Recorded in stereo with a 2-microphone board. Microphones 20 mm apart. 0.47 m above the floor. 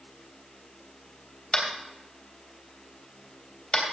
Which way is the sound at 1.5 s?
55° left (ahead or behind).